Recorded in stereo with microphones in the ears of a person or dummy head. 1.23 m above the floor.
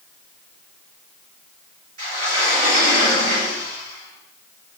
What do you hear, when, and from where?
2.0 s a sliding door: 50° right (ahead or behind), 2.0 m